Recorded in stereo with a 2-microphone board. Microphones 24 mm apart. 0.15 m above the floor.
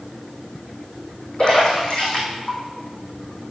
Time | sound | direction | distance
1.4 | a splash | 45° left (ahead or behind) | 3 m